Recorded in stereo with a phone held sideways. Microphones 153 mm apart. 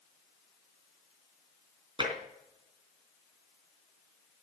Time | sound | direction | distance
2.0 | tapping | 35° right (ahead or behind) | 3 m